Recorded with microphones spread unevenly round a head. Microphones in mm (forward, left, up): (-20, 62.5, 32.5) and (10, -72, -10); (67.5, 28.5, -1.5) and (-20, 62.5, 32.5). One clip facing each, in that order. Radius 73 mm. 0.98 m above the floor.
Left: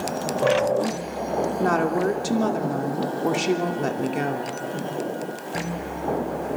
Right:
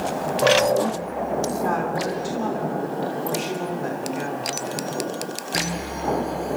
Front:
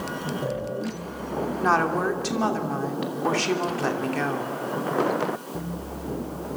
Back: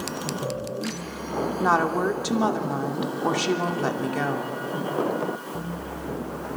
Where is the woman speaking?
80° left, 3 m.